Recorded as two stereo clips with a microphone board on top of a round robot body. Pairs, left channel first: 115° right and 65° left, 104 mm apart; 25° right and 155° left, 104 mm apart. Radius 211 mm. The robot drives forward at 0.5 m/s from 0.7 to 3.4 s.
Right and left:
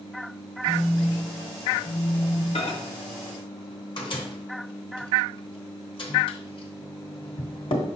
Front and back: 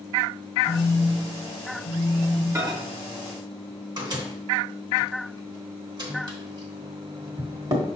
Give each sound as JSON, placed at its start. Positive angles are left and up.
{"t": 0.7, "sound": "a phone buzzing", "azimuth_deg": -25, "distance_m": 1.5}
{"t": 2.5, "sound": "a microwave", "azimuth_deg": -140, "distance_m": 0.9}